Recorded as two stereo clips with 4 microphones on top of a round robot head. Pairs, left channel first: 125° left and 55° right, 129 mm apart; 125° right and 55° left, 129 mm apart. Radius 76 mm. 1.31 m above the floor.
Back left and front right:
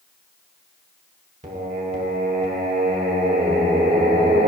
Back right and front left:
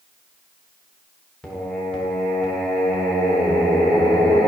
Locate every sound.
1.4 s singing: 40° right, 1.1 m